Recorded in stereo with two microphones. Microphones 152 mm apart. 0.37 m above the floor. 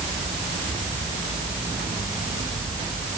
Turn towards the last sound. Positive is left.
No sound to turn to.